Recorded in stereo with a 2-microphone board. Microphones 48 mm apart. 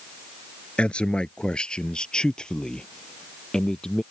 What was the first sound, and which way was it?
A man speaking, 20° left (ahead or behind).